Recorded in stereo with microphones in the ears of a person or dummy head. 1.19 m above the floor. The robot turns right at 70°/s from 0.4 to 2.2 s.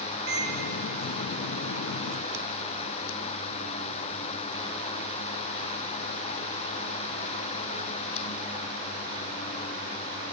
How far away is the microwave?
About 0.7 m.